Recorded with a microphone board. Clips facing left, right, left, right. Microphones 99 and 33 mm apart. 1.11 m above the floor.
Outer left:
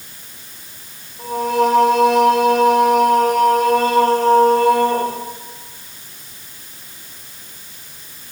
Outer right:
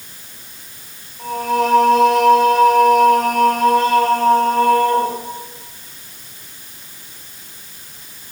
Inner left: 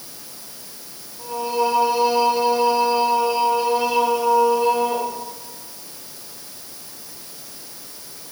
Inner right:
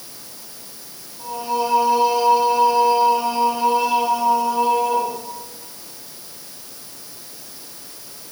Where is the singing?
30° left (ahead or behind), 5.5 m.